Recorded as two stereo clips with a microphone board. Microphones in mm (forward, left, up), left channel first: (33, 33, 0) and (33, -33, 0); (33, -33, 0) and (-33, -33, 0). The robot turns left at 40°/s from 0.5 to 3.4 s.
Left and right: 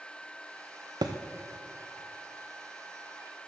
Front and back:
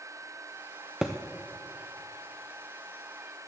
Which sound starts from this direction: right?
A thud, at 1.0 s.